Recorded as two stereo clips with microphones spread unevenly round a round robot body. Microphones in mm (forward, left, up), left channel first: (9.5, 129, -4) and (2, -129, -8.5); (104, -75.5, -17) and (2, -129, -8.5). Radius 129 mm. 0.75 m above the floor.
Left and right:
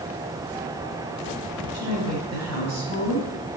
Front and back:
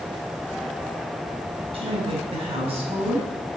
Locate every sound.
1.7 s a woman speaking: 120° right, 5.5 m